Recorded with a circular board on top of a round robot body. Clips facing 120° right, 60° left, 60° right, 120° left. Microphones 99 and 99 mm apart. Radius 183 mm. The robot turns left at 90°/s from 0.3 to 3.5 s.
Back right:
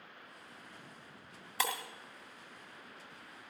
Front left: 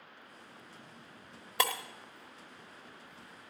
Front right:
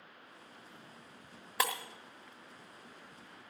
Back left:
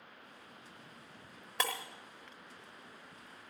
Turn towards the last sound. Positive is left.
turn(degrees=-145)